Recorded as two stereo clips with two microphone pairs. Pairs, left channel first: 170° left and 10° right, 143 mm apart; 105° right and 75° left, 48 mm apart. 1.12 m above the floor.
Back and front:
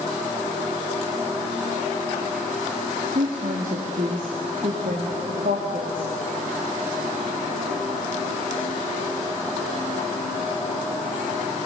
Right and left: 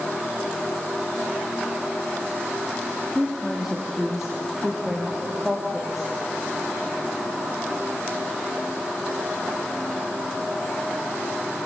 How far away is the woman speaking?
About 3 m.